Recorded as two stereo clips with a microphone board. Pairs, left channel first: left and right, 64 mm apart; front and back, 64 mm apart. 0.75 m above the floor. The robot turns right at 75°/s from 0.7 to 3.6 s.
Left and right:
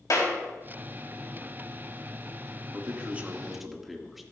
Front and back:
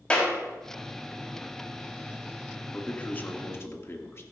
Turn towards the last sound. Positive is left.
turn(degrees=-5)